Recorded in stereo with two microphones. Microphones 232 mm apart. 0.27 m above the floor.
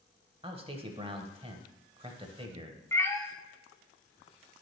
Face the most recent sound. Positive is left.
turn(degrees=10)  # may be behind; listen again after turning